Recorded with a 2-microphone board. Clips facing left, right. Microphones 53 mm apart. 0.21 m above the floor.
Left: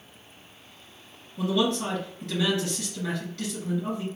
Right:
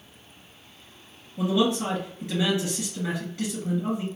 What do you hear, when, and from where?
1.4 s a man speaking: 20° right (ahead or behind), 1.8 m